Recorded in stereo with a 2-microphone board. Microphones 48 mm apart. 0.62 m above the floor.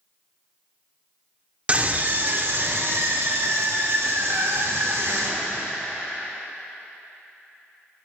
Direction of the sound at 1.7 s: 25° right (ahead or behind).